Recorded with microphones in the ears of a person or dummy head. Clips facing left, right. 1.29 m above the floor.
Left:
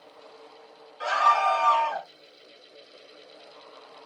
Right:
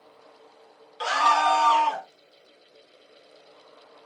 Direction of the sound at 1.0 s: 50° right (ahead or behind).